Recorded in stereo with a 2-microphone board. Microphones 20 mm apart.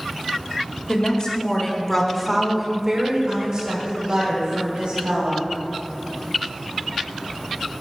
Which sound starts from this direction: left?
A woman speaking, at 0.9 s.